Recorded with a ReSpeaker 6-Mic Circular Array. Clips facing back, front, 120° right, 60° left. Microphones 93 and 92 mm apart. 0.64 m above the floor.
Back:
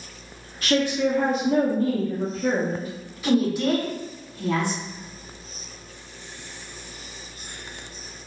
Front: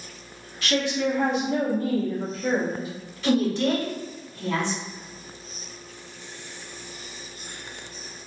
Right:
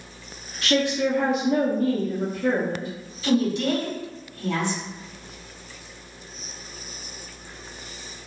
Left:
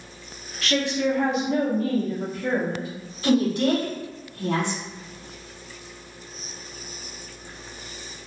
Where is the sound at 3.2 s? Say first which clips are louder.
Back 1 dB, left 2 dB; 100° left, 1.3 m.